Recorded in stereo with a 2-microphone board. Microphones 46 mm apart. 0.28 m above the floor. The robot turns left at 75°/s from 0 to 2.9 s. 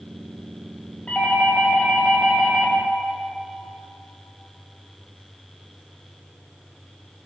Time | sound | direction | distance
1.1 | a doorbell | 25° left (ahead or behind) | 1.5 m